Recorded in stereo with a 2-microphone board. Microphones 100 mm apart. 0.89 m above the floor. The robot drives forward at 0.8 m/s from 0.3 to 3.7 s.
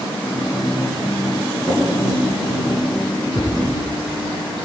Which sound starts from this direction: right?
A drawer, at 1.6 s.